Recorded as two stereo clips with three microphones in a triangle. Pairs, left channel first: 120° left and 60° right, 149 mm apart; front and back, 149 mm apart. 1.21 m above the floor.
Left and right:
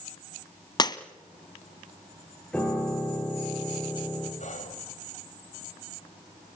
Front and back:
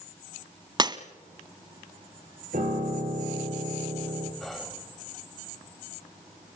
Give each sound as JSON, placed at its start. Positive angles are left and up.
{"t": 0.8, "sound": "breaking glass", "azimuth_deg": 150, "distance_m": 1.3}
{"t": 2.5, "sound": "a piano", "azimuth_deg": -160, "distance_m": 9.0}
{"t": 4.4, "sound": "whispering", "azimuth_deg": 90, "distance_m": 5.5}